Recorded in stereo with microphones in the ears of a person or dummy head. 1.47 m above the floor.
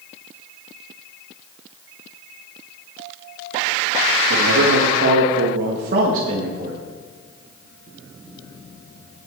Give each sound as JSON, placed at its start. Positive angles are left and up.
{"t": 4.3, "sound": "a man speaking", "side_deg": -90, "distance_m": 2.0}